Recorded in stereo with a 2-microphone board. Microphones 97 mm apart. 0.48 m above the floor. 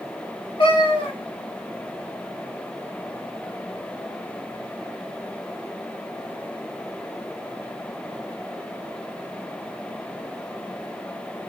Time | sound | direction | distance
0.6 | a cat meowing | 65° left (ahead or behind) | 1.0 m